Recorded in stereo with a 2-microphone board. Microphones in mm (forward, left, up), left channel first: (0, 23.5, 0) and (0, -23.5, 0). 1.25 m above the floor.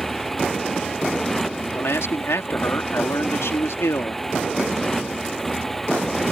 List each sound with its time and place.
0.0 s a motorcycle: 5° left (ahead or behind)
1.7 s a man speaking: 65° left (ahead or behind)